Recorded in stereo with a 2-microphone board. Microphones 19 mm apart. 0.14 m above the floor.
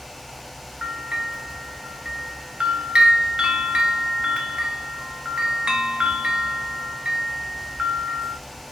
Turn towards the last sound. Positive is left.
turn(degrees=-55)  # may be behind; listen again after turning